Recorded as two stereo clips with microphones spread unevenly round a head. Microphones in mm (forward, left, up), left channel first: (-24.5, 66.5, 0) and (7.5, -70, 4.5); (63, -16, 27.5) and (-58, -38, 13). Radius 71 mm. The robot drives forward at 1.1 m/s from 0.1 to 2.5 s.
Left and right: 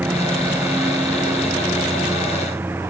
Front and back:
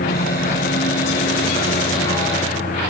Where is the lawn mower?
5° left; by 2.9 s straight ahead.